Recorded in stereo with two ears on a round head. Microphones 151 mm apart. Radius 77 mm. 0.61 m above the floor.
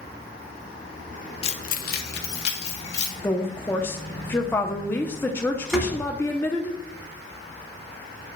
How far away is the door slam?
About 3.5 m.